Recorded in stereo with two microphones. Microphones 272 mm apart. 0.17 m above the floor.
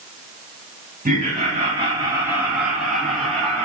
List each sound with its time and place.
1.1 s laughter: 30° right (ahead or behind), 2.0 m; by 3.7 s 5° left (ahead or behind), 3 m